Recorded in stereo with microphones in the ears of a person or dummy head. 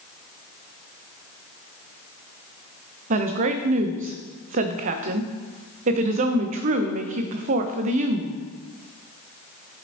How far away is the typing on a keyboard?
No typing on a keyboard in this recording.